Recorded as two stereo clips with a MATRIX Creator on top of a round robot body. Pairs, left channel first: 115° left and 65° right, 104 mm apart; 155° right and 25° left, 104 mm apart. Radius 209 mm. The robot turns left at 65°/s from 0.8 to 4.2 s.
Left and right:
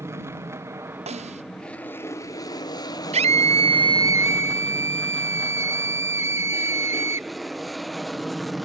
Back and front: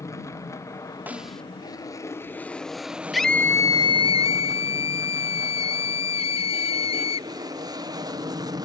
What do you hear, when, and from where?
0.0 s an aircraft: 120° right; by 8.7 s 20° left
1.1 s a snare drum: 50° right; by 1.4 s 75° right
3.1 s a scream: 65° right; by 7.3 s 135° right